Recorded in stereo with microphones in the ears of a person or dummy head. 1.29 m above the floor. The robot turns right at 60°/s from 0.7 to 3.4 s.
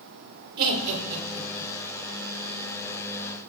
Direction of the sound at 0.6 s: 60° right (ahead or behind).